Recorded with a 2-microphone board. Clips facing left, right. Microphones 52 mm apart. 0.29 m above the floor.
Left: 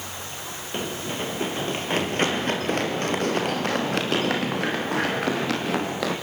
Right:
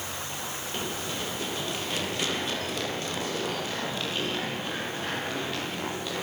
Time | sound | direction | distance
0.7 | running footsteps | 25° left (ahead or behind) | 7.5 m